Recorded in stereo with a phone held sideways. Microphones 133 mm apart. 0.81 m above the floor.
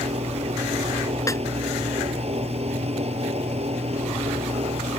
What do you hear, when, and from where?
0.0 s a fan: 50° right (ahead or behind)
1.3 s a snare drum: 25° left (ahead or behind)